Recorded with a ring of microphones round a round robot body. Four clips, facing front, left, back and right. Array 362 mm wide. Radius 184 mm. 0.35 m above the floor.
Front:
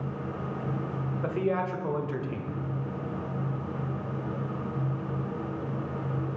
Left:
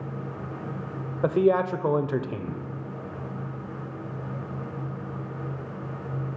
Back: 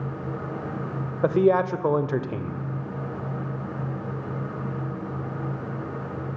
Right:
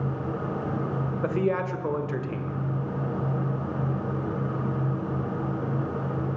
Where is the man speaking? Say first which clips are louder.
Left 6 dB, back 10 dB; 155° left, 1.3 m.